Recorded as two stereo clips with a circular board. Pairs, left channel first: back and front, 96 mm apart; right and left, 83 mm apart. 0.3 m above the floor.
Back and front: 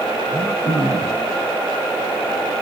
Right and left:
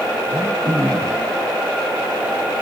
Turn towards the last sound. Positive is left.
turn(degrees=155)